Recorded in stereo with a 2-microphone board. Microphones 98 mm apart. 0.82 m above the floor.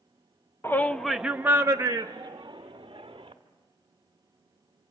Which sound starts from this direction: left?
A shout, at 0.6 s.